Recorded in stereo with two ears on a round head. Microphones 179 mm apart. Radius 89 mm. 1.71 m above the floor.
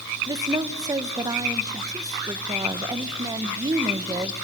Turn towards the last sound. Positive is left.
turn(degrees=-20)  # may be behind; listen again after turning